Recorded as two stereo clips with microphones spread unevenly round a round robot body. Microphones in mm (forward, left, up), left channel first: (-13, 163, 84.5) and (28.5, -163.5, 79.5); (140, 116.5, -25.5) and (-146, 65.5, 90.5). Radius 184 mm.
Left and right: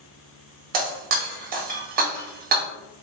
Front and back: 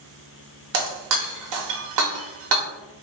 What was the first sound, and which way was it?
Breaking glass, 150° right.